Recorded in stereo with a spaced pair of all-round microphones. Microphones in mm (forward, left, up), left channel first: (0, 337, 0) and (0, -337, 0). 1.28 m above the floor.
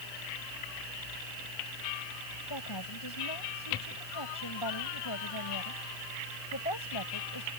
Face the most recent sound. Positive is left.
turn(degrees=35)  # may be behind; listen again after turning